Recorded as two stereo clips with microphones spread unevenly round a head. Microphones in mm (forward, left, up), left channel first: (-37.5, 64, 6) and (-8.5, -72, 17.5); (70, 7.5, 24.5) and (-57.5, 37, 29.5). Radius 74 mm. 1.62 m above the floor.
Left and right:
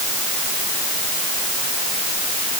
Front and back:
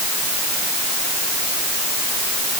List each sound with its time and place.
Only background noise.